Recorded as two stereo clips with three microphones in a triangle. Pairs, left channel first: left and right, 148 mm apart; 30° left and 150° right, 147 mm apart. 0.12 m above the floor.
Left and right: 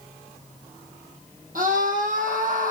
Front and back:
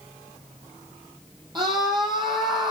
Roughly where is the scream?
Right.